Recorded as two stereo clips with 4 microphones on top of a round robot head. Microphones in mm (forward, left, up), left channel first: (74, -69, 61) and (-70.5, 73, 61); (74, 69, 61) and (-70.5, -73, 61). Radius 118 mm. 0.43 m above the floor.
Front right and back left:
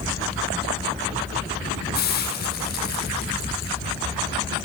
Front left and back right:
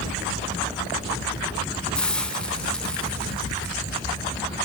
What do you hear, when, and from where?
1.9 s a hiss: 40° right, 2 m